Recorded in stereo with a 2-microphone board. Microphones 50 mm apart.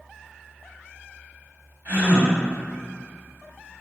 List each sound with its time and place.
1.9 s a gasp: 45° right (ahead or behind), 1.6 m